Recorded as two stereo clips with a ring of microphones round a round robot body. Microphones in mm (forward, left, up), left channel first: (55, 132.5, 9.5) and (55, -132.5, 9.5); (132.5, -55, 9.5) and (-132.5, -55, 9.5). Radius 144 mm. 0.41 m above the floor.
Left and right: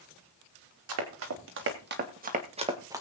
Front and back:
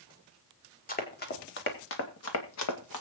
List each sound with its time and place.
0.9 s running footsteps: 60° right, 3.5 m; by 3.0 s 10° right, 2.5 m